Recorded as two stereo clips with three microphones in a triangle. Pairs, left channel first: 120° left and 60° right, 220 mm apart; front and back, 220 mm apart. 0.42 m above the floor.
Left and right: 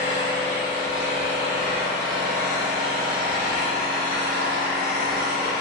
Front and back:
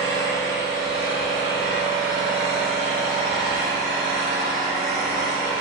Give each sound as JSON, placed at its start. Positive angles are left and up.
{"t": 0.0, "sound": "an engine running", "azimuth_deg": 10, "distance_m": 1.8}